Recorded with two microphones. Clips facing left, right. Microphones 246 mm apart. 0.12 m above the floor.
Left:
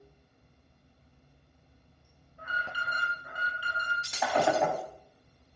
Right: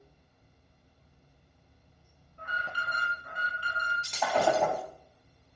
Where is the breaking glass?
5° left (ahead or behind), 1.5 m.